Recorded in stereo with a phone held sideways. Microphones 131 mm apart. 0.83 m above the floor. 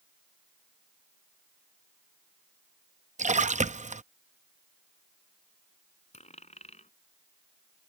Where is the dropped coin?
65° left (ahead or behind).